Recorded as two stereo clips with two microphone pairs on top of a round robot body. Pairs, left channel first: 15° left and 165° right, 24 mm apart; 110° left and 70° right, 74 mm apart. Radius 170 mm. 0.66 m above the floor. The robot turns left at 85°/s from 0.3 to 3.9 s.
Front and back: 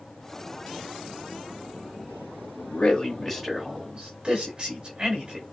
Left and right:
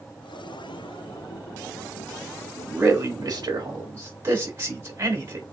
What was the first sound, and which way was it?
A man speaking, 10° right.